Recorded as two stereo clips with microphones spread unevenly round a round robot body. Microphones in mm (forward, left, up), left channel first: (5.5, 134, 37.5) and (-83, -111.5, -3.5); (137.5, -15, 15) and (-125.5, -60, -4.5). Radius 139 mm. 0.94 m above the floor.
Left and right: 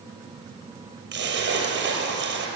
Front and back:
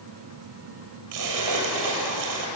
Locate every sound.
1.1 s a splash: 160° right, 6 m